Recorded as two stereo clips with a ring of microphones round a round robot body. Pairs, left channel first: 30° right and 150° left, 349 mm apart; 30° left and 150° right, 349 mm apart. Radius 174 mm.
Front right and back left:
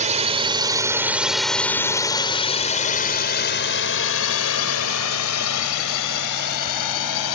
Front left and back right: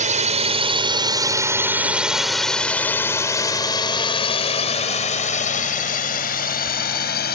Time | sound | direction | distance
0.0 | a drone | straight behind | ?